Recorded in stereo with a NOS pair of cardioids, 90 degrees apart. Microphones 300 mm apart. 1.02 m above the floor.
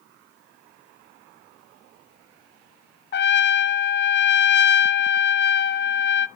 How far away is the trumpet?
About 0.6 m.